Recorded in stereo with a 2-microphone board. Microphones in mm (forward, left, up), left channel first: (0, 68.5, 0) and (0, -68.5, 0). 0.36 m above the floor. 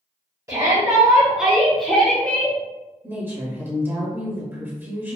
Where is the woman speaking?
15° right (ahead or behind), 1.2 m.